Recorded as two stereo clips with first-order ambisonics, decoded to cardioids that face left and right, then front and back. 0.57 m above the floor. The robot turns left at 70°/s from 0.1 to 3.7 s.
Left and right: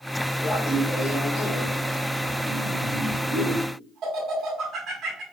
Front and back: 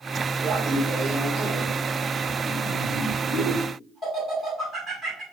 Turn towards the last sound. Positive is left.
turn(degrees=-75)